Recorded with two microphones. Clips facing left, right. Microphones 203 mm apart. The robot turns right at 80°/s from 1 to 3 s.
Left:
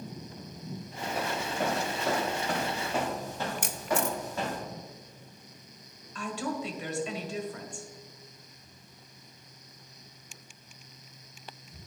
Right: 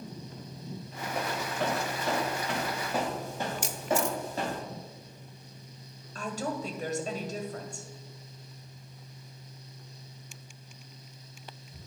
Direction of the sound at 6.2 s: 40° right (ahead or behind).